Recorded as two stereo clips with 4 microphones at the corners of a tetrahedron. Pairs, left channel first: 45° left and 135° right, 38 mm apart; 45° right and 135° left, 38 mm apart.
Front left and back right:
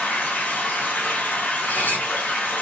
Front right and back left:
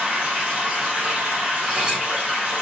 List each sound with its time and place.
0.0 s running water: 65° left, 3 m
1.6 s cutlery clinking: 60° left, 3 m